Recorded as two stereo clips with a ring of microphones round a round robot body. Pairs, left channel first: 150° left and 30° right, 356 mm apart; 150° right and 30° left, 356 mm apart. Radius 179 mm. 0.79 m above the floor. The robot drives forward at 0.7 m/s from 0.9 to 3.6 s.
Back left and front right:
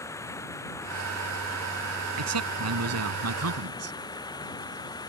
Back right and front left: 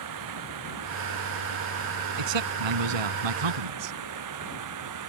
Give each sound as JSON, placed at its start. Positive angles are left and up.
{"t": 0.0, "sound": "running water", "azimuth_deg": 70}
{"t": 2.2, "sound": "a man speaking", "azimuth_deg": 20}